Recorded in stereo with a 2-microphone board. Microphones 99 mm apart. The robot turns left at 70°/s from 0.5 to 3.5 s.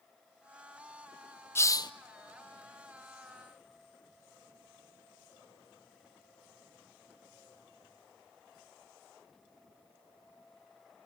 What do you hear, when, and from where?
1.6 s a hiss: 25° left (ahead or behind), 0.7 m; by 1.9 s 50° left (ahead or behind), 0.7 m